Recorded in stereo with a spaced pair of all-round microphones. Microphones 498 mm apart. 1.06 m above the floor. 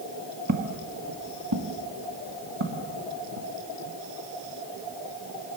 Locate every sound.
0.5 s footsteps: 35° right (ahead or behind), 1.2 m; by 3.5 s 70° right (ahead or behind), 3.5 m